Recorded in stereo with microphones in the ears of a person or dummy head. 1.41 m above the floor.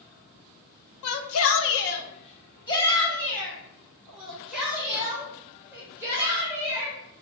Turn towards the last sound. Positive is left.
turn(degrees=-15)  # may be behind; listen again after turning